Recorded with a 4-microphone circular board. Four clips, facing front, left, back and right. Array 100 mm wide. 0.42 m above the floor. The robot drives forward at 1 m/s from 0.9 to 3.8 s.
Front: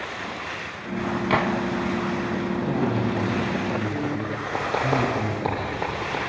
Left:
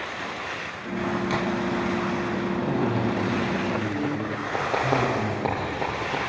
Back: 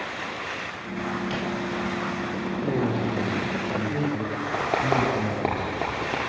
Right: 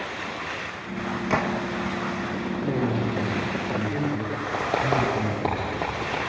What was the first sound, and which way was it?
A gunshot, 25° right.